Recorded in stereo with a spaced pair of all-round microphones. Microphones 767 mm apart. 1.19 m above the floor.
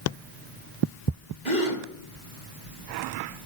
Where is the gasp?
70° right (ahead or behind), 1.8 m.